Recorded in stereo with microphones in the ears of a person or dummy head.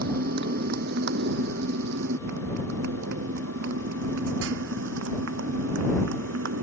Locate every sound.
0.0 s a motorcycle: 55° right (ahead or behind); by 6.6 s 75° right (ahead or behind)